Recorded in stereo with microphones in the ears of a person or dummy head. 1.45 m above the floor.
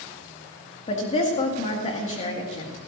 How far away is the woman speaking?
About 2 m.